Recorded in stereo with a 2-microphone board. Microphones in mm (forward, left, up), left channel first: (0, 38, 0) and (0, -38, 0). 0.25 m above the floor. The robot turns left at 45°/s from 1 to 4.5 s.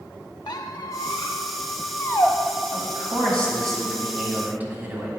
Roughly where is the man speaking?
Ahead left.